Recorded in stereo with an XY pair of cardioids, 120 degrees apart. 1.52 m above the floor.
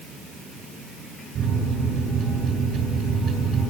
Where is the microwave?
65° right, 7 m.